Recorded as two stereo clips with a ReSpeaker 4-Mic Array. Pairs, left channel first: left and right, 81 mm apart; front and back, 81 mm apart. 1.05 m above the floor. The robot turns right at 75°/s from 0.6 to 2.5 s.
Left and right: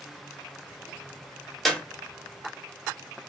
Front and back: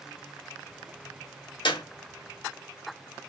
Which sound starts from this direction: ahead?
A clap, at 1.6 s.